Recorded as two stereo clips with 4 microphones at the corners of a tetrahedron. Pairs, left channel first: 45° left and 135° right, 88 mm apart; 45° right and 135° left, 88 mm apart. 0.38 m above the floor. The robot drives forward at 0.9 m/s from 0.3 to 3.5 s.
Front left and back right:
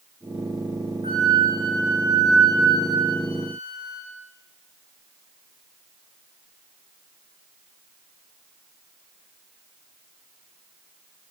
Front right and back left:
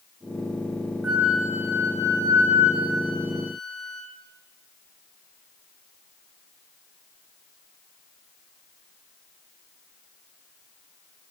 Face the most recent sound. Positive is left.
turn(degrees=-175)